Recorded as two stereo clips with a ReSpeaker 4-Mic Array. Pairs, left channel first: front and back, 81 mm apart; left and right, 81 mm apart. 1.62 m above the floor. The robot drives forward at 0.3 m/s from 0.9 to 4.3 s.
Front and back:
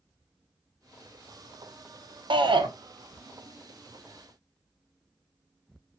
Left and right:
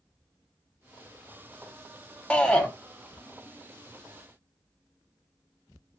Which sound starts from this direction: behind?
A shout, at 2.3 s.